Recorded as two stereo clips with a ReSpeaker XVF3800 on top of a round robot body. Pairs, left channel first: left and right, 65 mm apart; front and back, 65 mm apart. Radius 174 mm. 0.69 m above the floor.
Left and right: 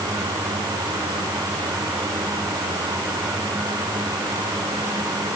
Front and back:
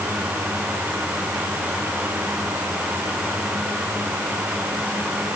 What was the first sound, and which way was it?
Only background noise.